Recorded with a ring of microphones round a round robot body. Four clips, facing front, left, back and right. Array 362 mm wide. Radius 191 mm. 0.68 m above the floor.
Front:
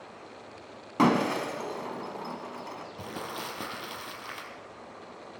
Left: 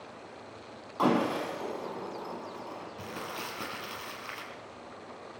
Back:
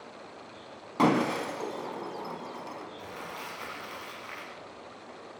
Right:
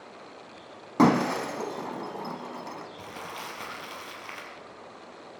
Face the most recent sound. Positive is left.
turn(degrees=15)